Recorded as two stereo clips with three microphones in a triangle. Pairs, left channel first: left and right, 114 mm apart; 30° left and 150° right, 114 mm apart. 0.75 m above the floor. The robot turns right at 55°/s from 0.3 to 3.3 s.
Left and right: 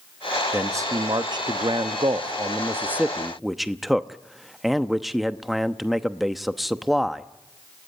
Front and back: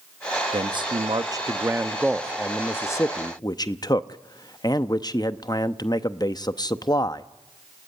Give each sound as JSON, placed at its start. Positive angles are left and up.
{"t": 0.5, "sound": "a man speaking", "azimuth_deg": -155, "distance_m": 0.8}